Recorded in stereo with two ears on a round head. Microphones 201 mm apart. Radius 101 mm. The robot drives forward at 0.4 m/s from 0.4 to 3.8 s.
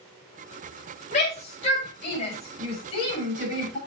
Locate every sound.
1.1 s a shout: 30° left (ahead or behind), 5.5 m; by 3.8 s 25° left (ahead or behind), 6.5 m